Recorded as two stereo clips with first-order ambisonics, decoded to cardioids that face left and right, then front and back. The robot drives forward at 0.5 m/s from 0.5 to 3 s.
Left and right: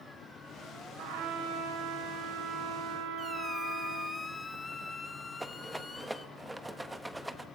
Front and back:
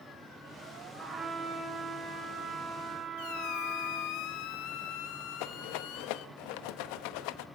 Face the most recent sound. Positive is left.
turn(degrees=-5)